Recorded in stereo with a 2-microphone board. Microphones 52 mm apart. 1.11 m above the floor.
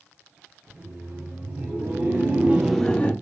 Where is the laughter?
70° right (ahead or behind), 1.7 m; by 3.1 s 30° left (ahead or behind), 0.6 m.